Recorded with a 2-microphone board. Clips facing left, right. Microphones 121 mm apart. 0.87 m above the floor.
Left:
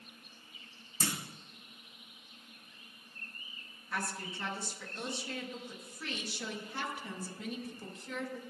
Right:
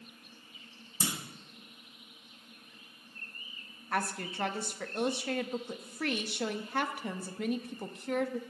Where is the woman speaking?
60° right (ahead or behind), 0.9 m.